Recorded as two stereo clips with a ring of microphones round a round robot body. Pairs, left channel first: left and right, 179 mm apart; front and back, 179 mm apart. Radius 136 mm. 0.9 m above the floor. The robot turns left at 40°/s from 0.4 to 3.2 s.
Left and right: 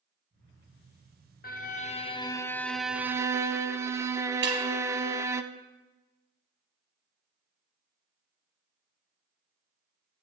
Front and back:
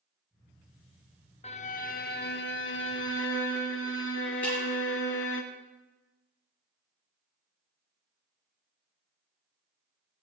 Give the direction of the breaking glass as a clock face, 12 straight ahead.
2 o'clock.